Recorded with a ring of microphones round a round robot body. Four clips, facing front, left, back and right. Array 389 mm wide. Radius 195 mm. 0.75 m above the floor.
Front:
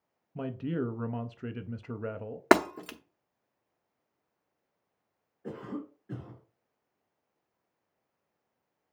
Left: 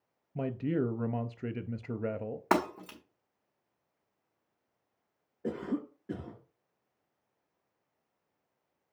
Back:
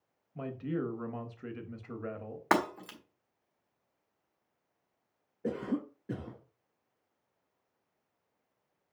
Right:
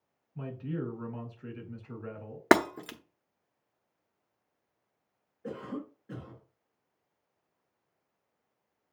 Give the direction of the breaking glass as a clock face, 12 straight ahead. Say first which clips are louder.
Right 6 dB, front 6 dB; 2 o'clock.